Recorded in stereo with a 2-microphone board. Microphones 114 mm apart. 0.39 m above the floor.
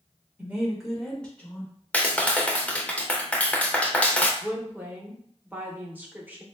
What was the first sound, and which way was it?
A woman speaking, 15° right (ahead or behind).